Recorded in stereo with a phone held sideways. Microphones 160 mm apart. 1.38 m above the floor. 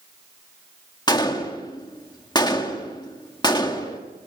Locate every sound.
1.1 s a gunshot: 25° left (ahead or behind), 1.8 m